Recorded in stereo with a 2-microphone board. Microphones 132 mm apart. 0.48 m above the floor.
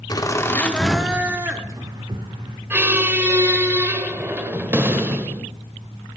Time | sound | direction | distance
0.1 | laughter | 30° left (ahead or behind) | 1.3 m
2.7 | a squeak | 15° right (ahead or behind) | 1.1 m